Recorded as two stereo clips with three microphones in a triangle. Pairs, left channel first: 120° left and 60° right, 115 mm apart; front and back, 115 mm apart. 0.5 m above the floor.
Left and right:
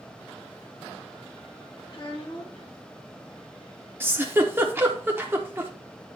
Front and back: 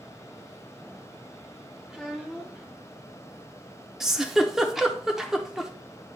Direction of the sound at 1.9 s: 100° left.